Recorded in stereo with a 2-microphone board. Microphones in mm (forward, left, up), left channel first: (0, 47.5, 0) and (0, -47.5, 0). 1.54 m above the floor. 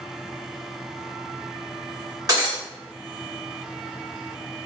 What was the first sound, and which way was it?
Breaking glass, 40° right (ahead or behind).